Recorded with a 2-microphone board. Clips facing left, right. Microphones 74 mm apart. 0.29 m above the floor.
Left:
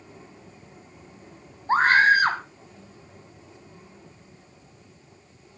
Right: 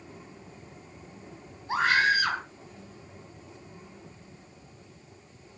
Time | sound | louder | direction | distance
1.7 | a scream | left 6 dB | 45° left (ahead or behind) | 2.5 m